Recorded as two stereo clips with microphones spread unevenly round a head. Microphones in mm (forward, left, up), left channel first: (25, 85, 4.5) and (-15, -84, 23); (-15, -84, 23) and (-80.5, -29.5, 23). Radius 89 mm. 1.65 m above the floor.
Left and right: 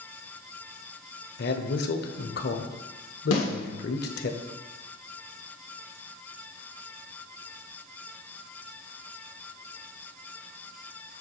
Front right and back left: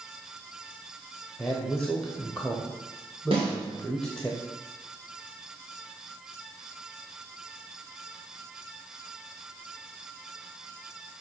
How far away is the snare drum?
About 1.9 m.